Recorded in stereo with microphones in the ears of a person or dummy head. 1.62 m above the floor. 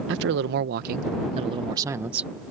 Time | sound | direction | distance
0.1 | a man speaking | 70° right (ahead or behind) | ?